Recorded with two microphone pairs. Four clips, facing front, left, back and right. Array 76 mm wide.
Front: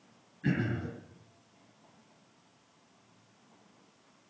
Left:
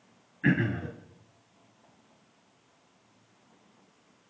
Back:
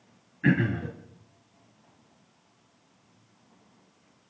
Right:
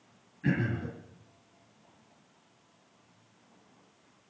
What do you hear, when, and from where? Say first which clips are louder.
0.4 s throat clearing: left 4 dB, back 7 dB; 145° left, 2.5 m